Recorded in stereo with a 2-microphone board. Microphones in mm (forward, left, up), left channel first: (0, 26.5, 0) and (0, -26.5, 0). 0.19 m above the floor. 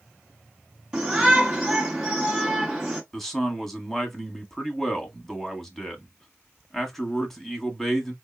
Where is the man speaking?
5° left (ahead or behind), 1.3 m.